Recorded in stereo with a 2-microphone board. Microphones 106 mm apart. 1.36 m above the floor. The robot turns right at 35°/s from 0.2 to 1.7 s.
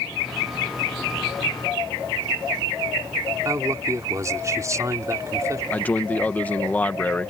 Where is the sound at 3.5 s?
30° right (ahead or behind).